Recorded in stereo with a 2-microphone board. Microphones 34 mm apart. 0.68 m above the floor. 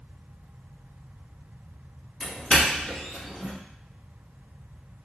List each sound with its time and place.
2.2 s a doorbell: 25° left (ahead or behind), 1.2 m